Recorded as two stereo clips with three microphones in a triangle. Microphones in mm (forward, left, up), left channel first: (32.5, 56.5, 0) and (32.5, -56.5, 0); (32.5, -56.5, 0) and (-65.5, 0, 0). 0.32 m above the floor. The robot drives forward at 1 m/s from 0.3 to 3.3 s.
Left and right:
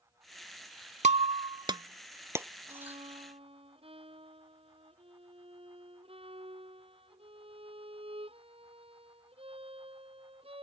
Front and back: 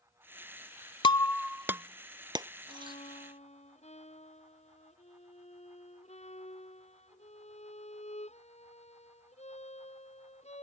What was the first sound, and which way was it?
Breaking glass, 75° right.